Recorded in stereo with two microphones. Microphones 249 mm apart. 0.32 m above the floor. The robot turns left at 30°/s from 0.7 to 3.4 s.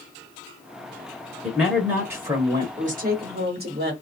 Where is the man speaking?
Centre (ahead or behind), 1.0 m; by 2.7 s 15° right (ahead or behind), 1.0 m.